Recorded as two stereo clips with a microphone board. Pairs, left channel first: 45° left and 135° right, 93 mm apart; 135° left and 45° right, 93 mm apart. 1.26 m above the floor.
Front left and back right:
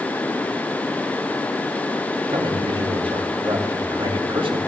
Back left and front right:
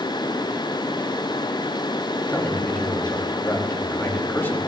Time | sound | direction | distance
2.3 | a man speaking | 155° right | 3 m